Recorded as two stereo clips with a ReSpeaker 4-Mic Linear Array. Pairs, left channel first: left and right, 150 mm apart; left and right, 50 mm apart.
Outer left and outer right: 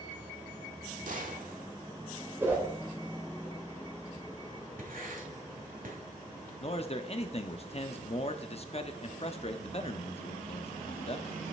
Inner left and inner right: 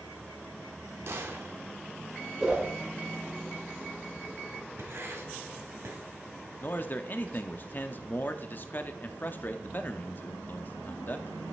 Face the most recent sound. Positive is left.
turn(degrees=45)  # may be behind; listen again after turning